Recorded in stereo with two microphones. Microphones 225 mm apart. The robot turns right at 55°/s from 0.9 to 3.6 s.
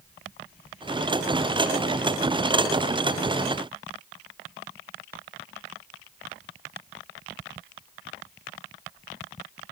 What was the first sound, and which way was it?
Only background noise.